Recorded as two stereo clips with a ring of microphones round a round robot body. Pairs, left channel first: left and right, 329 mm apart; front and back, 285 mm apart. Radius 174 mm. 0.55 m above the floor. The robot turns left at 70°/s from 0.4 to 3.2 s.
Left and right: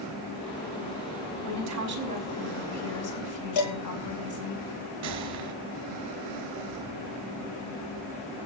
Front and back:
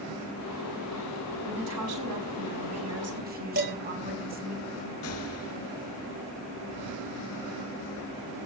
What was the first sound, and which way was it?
A woman speaking, 115° right.